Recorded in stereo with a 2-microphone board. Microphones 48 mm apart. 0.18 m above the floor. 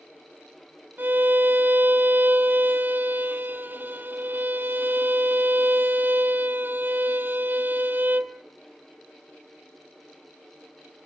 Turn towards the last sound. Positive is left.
turn(degrees=-40)  # may be behind; listen again after turning